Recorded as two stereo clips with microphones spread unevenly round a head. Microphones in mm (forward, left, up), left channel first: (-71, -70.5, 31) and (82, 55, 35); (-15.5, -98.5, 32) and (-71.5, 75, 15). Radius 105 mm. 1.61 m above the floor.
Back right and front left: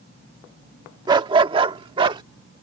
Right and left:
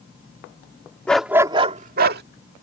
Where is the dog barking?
5° right; by 2.2 s 100° left.